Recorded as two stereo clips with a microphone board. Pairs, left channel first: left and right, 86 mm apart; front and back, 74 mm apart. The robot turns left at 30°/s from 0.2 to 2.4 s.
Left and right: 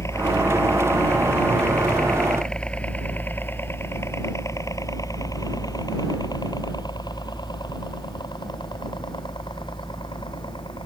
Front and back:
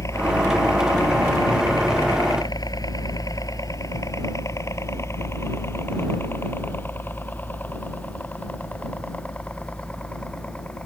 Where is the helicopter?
40° left; by 10.9 s 75° left.